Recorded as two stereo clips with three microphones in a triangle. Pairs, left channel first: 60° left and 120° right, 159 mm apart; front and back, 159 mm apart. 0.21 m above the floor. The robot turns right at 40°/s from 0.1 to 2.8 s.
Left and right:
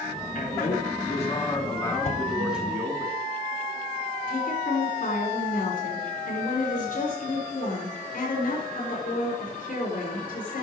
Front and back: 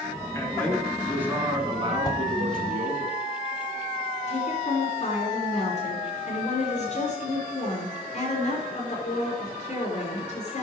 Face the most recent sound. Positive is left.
turn(degrees=40)